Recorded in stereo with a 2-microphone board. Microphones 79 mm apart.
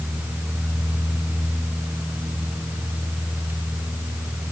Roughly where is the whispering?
No whispering in this recording.